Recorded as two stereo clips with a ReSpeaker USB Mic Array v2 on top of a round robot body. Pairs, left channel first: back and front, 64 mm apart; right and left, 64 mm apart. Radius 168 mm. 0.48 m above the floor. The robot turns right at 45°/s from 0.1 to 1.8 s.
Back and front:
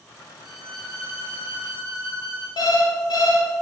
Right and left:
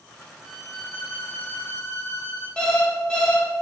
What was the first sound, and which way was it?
A violin, 175° right.